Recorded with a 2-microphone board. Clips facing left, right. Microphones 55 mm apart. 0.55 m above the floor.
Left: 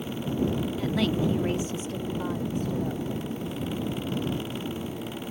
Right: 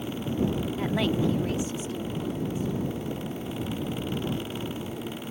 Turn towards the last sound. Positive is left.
turn(degrees=75)  # may be behind; listen again after turning